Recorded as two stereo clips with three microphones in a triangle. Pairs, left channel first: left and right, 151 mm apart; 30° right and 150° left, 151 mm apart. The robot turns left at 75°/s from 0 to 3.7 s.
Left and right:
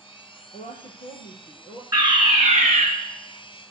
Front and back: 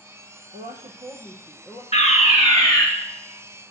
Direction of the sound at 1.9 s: 30° right.